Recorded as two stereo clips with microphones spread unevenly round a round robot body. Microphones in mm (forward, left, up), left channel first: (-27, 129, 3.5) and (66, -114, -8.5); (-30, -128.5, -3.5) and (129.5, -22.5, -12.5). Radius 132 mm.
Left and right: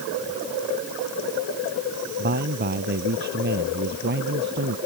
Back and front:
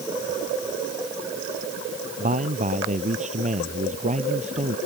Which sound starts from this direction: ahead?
A man speaking, at 2.2 s.